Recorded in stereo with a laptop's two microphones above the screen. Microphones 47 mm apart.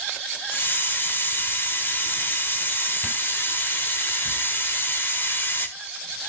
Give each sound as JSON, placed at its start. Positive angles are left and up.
{"t": 0.5, "sound": "a hiss", "side_deg": 45, "distance_m": 1.3}